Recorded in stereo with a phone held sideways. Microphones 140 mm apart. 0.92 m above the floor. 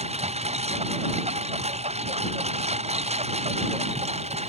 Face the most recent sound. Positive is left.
turn(degrees=-50)  # may be behind; listen again after turning